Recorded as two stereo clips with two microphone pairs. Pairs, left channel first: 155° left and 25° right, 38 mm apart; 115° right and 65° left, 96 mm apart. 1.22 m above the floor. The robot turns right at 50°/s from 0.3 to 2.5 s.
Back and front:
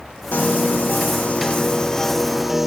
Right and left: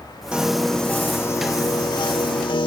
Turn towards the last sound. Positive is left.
turn(degrees=-110)